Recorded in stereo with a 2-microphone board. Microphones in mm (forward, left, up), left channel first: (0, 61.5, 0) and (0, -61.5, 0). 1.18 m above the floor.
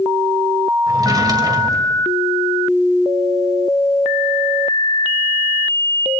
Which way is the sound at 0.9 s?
30° right (ahead or behind).